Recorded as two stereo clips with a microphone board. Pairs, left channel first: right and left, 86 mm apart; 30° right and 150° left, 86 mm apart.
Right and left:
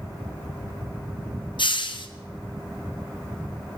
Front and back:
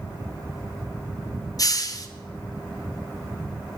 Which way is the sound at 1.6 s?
75° right.